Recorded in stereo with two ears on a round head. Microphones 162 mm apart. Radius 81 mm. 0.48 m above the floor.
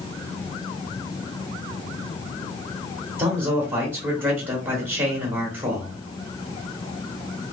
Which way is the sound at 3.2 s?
10° right (ahead or behind).